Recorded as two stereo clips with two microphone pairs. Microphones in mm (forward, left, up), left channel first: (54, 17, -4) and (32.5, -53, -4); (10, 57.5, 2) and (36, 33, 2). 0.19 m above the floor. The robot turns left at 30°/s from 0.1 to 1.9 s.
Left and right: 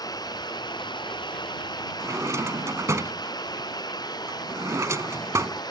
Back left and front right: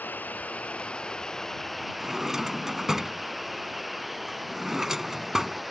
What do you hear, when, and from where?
0.0 s running water: 105° left; by 5.7 s 50° left
2.0 s a drawer: 115° right